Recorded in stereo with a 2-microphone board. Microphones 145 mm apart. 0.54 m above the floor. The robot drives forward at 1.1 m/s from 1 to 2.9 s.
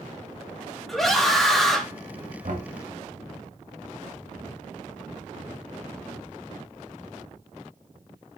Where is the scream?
Centre (ahead or behind), 3 m.